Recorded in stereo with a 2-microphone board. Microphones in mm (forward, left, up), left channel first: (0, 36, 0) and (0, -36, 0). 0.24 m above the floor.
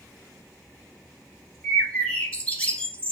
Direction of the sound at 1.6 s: 15° left (ahead or behind).